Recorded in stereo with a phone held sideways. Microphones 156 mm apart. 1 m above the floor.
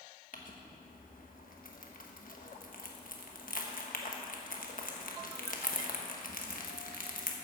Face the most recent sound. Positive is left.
turn(degrees=65)  # may be behind; listen again after turning